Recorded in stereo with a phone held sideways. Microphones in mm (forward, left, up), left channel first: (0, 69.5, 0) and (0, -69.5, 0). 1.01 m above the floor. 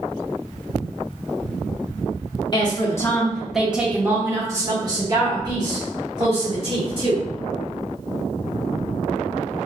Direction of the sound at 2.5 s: 35° left (ahead or behind).